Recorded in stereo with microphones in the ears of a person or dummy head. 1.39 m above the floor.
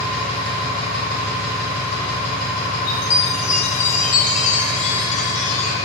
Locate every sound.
0.0 s an engine running: 30° right (ahead or behind), 1.8 m
2.9 s a chime: 40° left (ahead or behind), 0.6 m